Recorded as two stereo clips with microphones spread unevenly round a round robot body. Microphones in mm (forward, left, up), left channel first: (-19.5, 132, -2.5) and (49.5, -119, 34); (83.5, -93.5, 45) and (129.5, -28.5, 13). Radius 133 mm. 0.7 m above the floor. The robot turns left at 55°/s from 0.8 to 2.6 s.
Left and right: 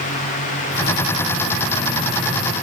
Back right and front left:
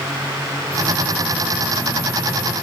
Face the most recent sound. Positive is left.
No sound to turn to.